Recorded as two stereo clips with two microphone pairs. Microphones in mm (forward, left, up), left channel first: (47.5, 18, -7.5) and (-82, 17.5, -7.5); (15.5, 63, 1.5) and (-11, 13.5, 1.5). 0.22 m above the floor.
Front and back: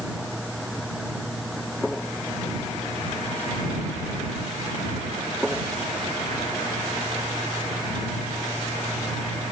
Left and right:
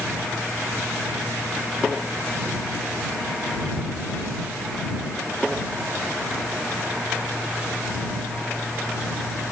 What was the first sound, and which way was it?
Only background noise.